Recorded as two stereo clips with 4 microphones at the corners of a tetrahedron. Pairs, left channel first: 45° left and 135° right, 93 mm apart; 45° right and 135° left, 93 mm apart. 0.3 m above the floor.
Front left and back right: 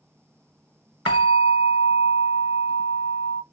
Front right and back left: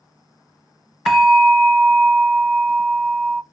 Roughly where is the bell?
Ahead left.